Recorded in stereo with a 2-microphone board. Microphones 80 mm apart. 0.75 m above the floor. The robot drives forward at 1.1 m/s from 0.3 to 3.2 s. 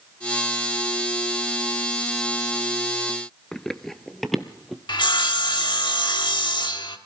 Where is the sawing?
70° left (ahead or behind), 1.3 m.